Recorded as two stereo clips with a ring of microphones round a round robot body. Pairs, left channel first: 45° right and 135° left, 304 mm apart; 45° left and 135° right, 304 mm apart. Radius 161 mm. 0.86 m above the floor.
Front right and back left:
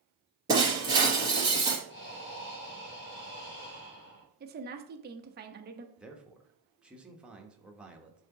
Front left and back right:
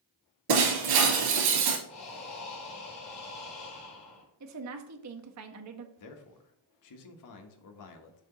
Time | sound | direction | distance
0.5 | breaking glass | 145° right | 2.5 m
1.9 | breathing | 10° left | 2.5 m
4.4 | a woman speaking | 165° right | 1.0 m
6.0 | a man speaking | 50° left | 1.2 m